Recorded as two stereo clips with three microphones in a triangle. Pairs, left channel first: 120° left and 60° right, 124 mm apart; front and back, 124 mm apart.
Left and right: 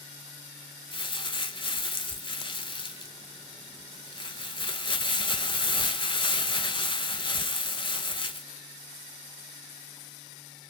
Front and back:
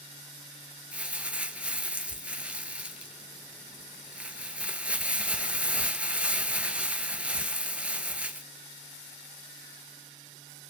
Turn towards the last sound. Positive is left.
turn(degrees=105)